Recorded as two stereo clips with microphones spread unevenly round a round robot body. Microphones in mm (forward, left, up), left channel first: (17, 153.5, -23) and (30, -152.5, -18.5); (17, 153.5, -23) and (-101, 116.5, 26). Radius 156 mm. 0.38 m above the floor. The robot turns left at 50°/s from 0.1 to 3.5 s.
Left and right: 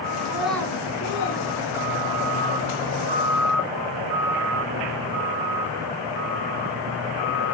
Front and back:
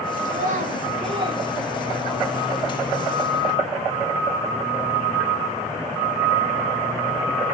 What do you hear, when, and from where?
0.2 s a child speaking: 165° right, 2.5 m; by 2.4 s 90° left, 2.5 m